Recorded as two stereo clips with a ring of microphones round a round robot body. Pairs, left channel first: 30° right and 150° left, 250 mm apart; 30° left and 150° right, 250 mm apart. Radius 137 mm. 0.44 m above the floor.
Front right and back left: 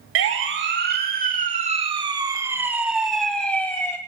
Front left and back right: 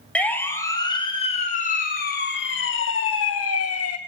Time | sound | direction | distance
0.1 | a siren | 115° left | 3.5 m